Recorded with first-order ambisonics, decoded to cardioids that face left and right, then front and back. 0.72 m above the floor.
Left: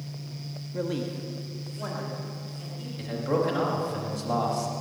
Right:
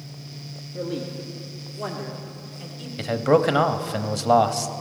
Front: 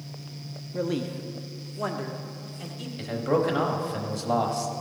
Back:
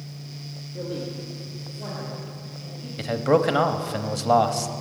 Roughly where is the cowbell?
No cowbell in this recording.